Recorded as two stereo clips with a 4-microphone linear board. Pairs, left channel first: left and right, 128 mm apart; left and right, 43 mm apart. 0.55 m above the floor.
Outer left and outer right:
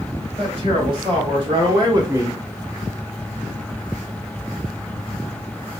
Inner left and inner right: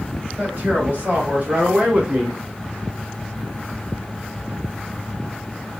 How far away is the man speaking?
About 2 m.